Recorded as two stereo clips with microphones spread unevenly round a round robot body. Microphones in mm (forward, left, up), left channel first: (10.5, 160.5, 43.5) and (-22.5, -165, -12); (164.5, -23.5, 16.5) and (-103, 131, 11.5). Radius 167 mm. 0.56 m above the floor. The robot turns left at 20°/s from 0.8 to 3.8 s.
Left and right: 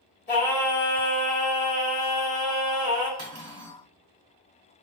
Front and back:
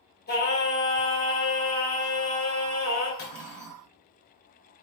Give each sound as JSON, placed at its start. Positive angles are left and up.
{"t": 0.3, "sound": "singing", "azimuth_deg": 25, "distance_m": 2.0}
{"t": 3.2, "sound": "cutlery clinking", "azimuth_deg": -60, "distance_m": 1.3}